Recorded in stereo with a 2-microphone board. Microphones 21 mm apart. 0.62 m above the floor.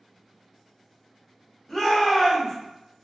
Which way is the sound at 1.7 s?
20° left (ahead or behind).